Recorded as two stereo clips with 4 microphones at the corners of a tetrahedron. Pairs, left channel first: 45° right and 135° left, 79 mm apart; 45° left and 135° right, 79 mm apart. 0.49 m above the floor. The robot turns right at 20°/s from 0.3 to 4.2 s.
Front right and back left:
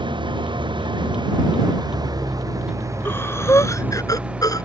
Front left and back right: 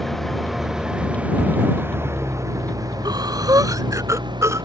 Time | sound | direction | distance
0.0 | an engine running | 135° left | ?
3.0 | breathing | 105° right | ?